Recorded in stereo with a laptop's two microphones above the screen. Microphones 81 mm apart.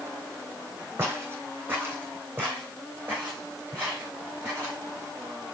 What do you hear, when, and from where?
1.0 s footsteps: 30° right (ahead or behind), 2.5 m; by 4.8 s 20° right (ahead or behind), 4.5 m